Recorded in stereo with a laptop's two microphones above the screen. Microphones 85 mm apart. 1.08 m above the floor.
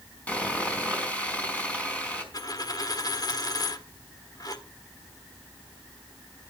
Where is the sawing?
15° left (ahead or behind), 4.5 m.